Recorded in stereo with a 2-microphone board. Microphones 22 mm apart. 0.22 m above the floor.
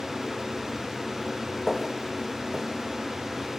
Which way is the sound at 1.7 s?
5° right (ahead or behind).